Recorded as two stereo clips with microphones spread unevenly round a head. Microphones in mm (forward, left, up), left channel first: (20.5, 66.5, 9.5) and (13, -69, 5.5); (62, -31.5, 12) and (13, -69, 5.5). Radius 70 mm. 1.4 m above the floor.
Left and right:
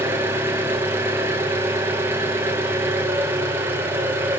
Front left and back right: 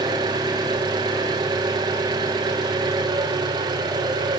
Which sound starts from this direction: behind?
An engine running, at 0.0 s.